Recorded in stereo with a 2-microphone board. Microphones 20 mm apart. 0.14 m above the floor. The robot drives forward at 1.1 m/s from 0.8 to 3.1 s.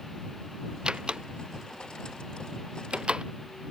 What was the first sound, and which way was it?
A door slam, 40° right (ahead or behind).